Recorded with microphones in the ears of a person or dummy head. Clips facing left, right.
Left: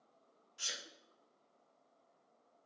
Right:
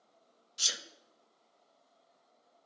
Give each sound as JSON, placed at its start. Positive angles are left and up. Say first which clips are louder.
{"t": 0.6, "sound": "a sneeze", "louder": "right 4 dB", "side_deg": -50, "distance_m": 0.6}